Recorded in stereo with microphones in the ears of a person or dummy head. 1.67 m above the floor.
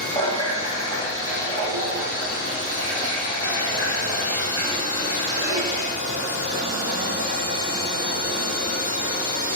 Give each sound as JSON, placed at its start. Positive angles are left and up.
{"t": 0.1, "sound": "a running tap", "side_deg": 25, "distance_m": 1.2}